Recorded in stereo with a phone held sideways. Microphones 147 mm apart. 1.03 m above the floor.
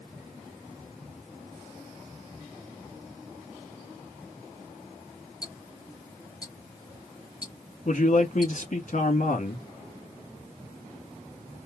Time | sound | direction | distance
5.4 | ticking | 25° left (ahead or behind) | 1.0 m
7.8 | a man speaking | 55° left (ahead or behind) | 1.5 m